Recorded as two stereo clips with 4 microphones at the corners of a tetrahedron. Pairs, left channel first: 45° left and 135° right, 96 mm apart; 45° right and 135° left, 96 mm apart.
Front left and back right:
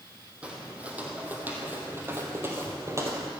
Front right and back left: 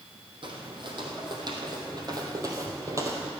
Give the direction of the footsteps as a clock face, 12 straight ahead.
7 o'clock.